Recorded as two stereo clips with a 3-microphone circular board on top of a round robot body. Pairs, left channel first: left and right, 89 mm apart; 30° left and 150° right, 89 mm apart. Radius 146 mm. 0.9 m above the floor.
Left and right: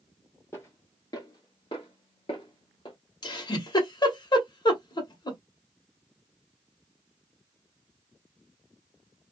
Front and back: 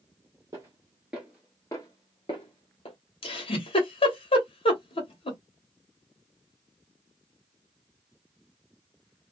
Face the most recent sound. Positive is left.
turn(degrees=50)